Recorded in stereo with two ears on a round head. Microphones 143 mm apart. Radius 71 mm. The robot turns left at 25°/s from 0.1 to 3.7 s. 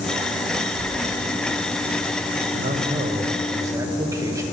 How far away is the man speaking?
About 1.1 m.